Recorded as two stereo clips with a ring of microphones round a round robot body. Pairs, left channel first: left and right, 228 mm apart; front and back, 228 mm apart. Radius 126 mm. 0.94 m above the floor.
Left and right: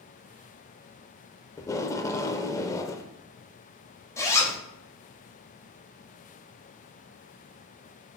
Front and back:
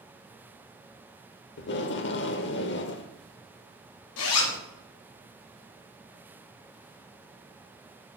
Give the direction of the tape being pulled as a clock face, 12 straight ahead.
11 o'clock.